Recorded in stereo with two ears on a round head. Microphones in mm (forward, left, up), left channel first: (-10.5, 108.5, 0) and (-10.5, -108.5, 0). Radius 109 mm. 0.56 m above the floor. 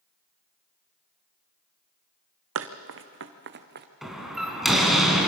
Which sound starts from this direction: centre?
A door slam, at 4.0 s.